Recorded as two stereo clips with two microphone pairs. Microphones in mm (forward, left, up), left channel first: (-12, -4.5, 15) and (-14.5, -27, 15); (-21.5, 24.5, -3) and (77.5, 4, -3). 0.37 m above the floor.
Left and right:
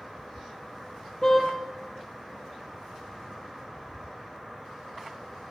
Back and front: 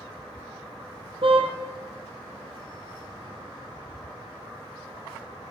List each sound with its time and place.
1.2 s a car horn: 20° left, 5 m